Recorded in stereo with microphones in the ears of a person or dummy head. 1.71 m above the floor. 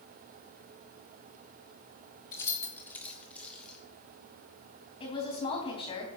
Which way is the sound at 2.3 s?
20° left (ahead or behind).